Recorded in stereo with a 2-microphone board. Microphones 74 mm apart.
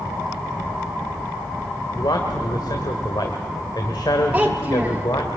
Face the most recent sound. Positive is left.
turn(degrees=-15)  # may be behind; listen again after turning